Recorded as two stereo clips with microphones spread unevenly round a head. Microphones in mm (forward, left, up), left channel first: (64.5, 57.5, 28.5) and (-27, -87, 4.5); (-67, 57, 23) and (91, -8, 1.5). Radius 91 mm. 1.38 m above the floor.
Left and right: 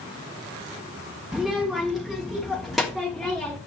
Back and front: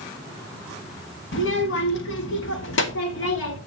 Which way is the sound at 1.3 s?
150° left.